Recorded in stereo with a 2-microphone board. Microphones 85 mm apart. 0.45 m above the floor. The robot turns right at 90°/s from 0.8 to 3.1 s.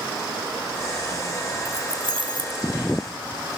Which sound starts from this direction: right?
Keys jangling, at 1.6 s.